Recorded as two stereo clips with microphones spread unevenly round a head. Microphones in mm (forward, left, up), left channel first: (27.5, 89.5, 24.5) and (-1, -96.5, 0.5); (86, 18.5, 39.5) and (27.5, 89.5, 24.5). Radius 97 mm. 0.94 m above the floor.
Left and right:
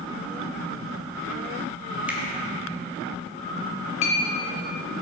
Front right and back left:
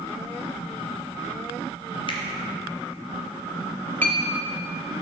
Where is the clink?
20° left, 1.4 m.